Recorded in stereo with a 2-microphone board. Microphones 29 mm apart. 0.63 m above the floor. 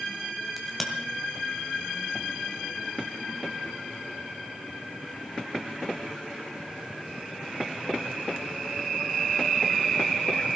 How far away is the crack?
About 2.5 m.